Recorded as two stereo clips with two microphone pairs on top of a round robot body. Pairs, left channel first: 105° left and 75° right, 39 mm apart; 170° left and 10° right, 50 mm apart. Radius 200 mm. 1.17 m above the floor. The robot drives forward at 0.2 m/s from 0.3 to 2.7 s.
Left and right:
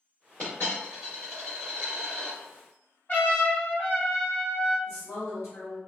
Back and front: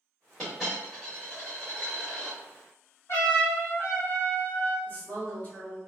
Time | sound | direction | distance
0.4 | a dropped coin | 95° left | 1.0 m
3.1 | a trumpet | 150° left | 1.5 m
4.9 | a woman speaking | 115° left | 1.4 m